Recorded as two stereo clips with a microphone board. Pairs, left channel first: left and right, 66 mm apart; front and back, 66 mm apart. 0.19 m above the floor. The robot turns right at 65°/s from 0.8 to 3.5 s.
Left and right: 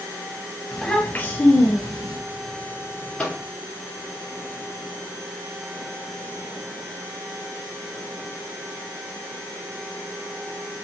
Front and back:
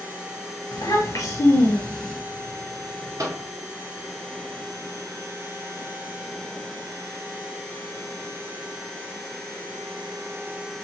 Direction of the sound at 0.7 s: 5° left.